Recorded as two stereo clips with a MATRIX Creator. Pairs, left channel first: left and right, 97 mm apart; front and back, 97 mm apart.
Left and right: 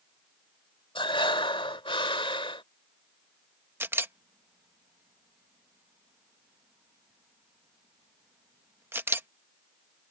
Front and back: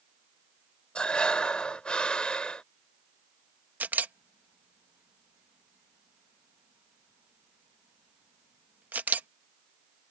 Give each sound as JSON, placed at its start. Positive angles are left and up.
{"t": 0.9, "sound": "breathing", "azimuth_deg": 80}
{"t": 3.8, "sound": "a camera shutter", "azimuth_deg": -125}